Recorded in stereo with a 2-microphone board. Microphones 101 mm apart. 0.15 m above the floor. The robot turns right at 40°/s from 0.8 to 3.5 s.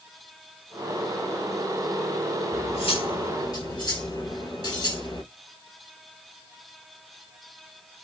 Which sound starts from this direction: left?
Cutlery clinking, at 2.5 s.